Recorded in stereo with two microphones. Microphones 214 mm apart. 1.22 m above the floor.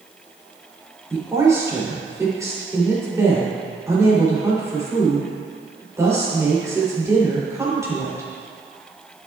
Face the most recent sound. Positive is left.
turn(degrees=-15)  # may be behind; listen again after turning